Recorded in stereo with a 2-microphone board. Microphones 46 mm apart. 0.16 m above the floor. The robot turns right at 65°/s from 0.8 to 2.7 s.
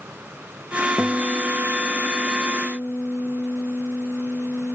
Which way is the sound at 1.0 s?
5° right.